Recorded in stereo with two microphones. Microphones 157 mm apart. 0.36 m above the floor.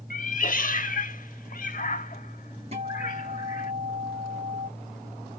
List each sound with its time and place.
0.1 s a cat meowing: 55° left (ahead or behind), 0.6 m
2.7 s a guitar: 40° right (ahead or behind), 3.5 m